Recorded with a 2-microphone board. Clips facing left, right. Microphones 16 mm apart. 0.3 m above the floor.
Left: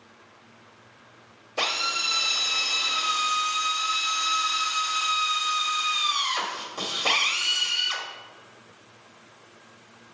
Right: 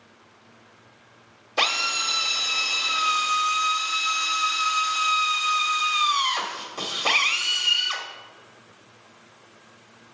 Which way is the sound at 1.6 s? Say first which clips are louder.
Right 3 dB; 25° right (ahead or behind).